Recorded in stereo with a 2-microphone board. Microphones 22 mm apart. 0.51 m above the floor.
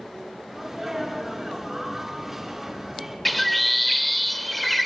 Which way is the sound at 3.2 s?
5° left (ahead or behind).